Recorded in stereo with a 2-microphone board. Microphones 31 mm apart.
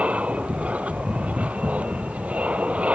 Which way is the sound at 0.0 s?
45° right (ahead or behind).